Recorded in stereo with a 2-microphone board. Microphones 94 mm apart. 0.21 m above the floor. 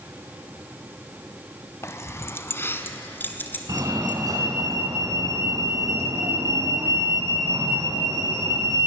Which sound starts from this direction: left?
Keys jangling, at 1.8 s.